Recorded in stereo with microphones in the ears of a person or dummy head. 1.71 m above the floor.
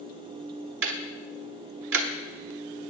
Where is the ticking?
65° right (ahead or behind), 0.9 m.